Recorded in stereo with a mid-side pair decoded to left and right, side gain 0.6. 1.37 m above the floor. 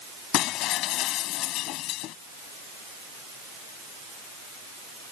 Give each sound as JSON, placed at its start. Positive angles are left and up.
{"t": 0.3, "sound": "breaking glass", "azimuth_deg": 65}